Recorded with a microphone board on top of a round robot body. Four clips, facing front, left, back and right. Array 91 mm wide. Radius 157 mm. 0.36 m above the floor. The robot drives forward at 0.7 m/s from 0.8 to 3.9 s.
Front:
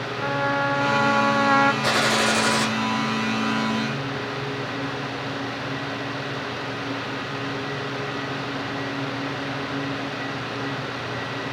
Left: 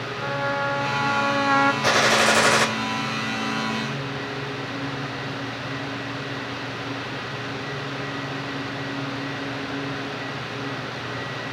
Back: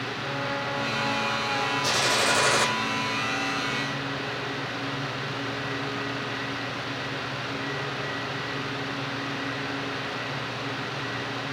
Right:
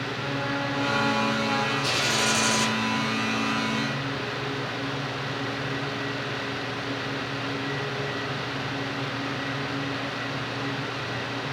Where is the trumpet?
20° left, 1.1 m; by 1.7 s 45° left, 0.5 m.